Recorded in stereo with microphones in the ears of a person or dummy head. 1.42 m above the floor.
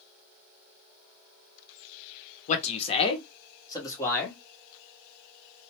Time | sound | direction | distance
2.5 | a man speaking | 45° left (ahead or behind) | 0.9 m